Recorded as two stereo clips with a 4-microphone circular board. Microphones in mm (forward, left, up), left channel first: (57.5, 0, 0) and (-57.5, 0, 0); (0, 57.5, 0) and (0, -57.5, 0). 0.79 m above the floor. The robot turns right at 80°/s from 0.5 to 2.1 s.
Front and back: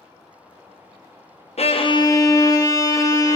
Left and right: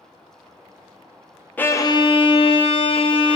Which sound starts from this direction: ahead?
A violin, at 1.6 s.